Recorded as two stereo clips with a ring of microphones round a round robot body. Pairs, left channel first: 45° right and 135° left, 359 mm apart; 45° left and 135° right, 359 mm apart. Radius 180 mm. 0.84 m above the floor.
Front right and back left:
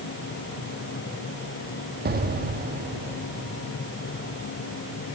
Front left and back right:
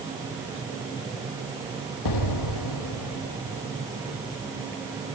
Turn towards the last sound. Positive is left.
turn(degrees=70)